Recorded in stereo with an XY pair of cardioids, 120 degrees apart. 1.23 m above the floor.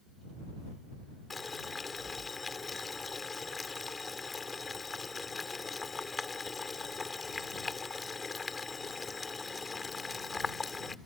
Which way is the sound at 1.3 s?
25° left.